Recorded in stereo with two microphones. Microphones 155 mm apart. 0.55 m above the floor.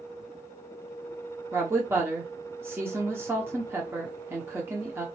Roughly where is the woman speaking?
Centre.